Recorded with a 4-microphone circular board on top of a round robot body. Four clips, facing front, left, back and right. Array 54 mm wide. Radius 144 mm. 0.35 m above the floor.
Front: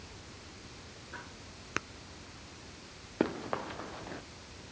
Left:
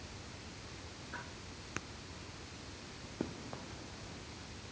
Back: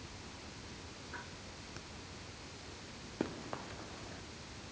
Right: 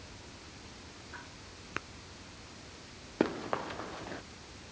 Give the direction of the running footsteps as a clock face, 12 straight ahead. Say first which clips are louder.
Right 12 dB, front 8 dB; 2 o'clock.